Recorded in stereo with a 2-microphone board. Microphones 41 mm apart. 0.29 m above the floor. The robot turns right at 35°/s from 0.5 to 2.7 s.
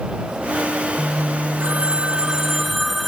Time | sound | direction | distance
1.6 | a phone ringing | 40° right | ?